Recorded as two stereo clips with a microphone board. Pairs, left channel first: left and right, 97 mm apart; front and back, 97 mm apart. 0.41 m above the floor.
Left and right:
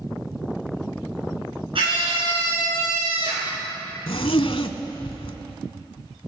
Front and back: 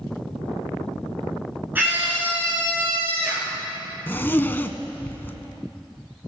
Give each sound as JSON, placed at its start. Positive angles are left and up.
{"t": 1.8, "sound": "a scream", "azimuth_deg": -110, "distance_m": 5.5}
{"t": 4.1, "sound": "a zipper", "azimuth_deg": 70, "distance_m": 0.7}